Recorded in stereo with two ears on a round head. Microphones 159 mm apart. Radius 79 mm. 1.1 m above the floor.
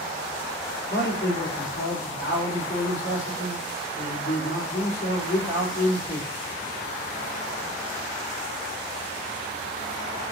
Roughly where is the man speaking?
Left.